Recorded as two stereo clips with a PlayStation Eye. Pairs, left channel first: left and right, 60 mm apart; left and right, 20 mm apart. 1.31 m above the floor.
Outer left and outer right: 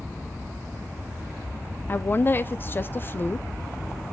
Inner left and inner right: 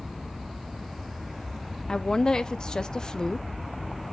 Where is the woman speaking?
35° left (ahead or behind), 0.5 m.